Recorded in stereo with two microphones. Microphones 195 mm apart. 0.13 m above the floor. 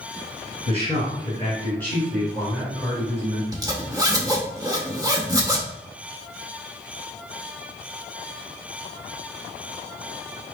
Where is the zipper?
20° right (ahead or behind), 0.8 m.